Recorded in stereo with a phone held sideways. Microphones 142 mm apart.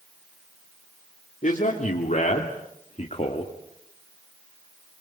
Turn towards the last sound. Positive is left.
turn(degrees=45)  # may be behind; listen again after turning